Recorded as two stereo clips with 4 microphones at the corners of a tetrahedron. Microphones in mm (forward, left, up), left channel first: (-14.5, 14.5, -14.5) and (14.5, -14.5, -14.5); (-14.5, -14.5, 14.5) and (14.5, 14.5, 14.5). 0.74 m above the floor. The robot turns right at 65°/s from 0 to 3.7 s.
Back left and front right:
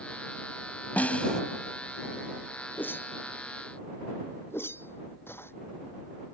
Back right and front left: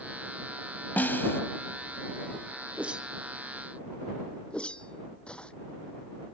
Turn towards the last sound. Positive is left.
turn(degrees=160)